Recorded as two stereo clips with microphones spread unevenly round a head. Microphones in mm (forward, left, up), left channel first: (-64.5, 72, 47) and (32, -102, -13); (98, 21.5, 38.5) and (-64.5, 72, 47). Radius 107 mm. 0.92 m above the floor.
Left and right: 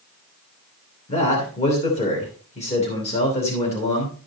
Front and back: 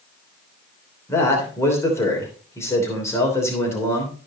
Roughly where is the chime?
I don't hear a chime.